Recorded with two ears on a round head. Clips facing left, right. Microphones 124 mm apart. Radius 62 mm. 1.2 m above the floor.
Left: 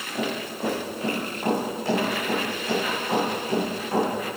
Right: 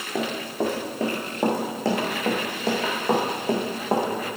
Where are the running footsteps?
75° right (ahead or behind), 4 m; by 4.1 s 45° right (ahead or behind), 4 m.